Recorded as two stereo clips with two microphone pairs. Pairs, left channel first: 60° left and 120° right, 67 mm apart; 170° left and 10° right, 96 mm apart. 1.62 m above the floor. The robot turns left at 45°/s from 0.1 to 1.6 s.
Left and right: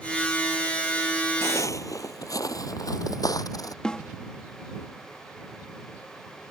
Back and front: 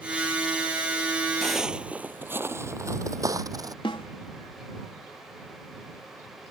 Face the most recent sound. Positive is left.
turn(degrees=140)